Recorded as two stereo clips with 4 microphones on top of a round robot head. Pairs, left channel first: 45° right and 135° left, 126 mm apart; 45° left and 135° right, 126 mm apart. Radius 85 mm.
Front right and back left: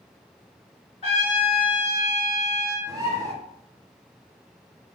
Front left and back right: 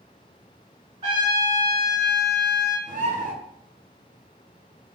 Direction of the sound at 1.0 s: 90° right.